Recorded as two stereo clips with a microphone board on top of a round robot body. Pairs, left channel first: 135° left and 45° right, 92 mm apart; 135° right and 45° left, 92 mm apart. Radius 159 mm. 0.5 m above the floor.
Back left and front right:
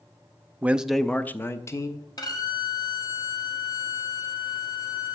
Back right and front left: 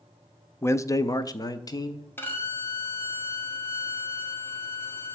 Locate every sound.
0.6 s a man speaking: 100° right, 0.7 m; by 2.0 s 175° right, 1.2 m
2.2 s a violin: 165° left, 2 m